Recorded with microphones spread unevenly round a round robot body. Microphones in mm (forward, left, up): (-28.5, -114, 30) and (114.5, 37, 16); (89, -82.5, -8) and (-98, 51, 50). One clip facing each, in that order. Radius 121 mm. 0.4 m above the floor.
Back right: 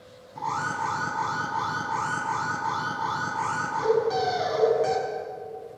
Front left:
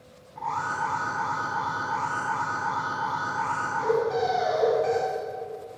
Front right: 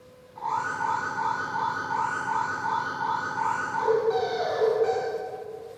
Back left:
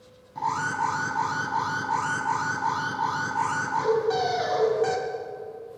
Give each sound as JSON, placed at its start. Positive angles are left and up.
{"t": 0.3, "sound": "an alarm", "azimuth_deg": 175, "distance_m": 4.0}